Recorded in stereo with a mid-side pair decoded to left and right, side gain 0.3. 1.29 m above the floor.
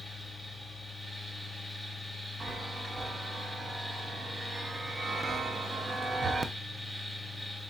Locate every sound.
0.0 s a fan: 10° right, 3 m
2.4 s a chime: 50° right, 0.6 m